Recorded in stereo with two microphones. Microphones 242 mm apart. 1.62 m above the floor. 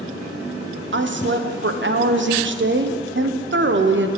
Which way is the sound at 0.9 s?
50° right (ahead or behind).